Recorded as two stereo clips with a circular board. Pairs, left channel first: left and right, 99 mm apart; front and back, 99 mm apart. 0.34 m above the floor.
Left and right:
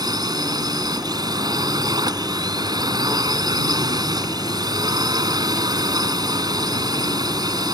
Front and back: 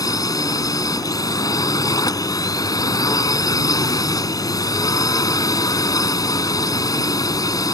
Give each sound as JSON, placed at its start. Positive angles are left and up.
{"t": 0.0, "sound": "a drone", "azimuth_deg": -50}